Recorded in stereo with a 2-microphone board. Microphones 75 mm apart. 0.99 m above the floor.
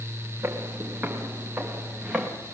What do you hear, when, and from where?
0.4 s footsteps: 35° right (ahead or behind), 4.5 m; by 2.3 s 10° right (ahead or behind), 5 m